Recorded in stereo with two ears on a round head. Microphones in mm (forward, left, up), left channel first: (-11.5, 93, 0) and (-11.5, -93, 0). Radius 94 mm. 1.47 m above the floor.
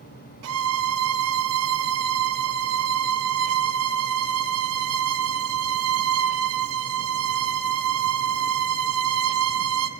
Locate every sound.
0.4 s a violin: 80° right, 0.5 m